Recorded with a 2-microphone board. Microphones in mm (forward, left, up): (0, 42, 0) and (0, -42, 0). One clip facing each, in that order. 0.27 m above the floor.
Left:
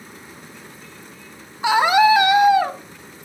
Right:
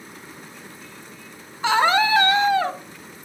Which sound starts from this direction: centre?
A scream, at 1.6 s.